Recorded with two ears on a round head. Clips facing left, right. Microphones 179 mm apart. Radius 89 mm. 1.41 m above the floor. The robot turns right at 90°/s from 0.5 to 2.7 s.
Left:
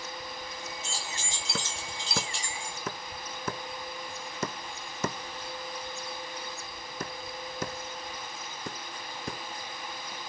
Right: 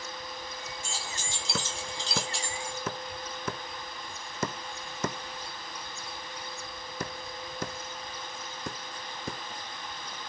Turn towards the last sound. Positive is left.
turn(degrees=0)  # may be behind; listen again after turning